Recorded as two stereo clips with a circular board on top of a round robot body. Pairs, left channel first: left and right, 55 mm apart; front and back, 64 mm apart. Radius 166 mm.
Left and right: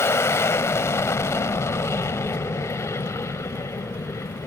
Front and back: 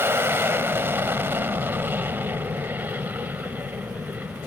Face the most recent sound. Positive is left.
turn(degrees=115)